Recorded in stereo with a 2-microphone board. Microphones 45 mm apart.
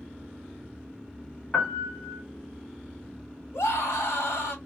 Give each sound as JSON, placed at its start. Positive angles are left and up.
{"t": 1.5, "sound": "a piano", "side_deg": 20, "distance_m": 1.7}
{"t": 3.5, "sound": "a scream", "side_deg": 65, "distance_m": 1.5}